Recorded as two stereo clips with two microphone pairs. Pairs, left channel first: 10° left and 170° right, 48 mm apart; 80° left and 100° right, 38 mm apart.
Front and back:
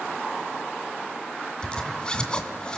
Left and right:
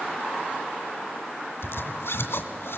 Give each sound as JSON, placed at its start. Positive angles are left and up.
{"t": 1.6, "sound": "a zipper", "azimuth_deg": 80, "distance_m": 2.5}